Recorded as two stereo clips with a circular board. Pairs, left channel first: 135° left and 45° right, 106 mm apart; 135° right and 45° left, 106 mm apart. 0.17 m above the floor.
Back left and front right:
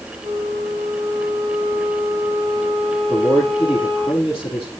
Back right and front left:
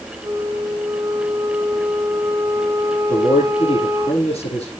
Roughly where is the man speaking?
Behind right.